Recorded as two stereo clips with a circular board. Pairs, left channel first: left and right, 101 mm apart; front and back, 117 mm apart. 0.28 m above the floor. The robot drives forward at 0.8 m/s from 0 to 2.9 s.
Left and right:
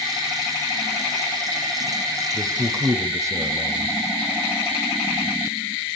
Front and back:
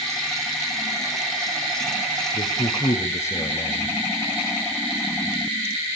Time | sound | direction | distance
2.3 | a man speaking | 35° right | 1.7 m